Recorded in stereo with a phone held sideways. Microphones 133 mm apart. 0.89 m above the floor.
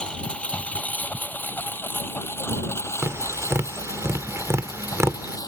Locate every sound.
0.0 s a lawn mower: 5° left (ahead or behind); by 5.5 s 30° left (ahead or behind)
3.0 s tapping: 20° right (ahead or behind)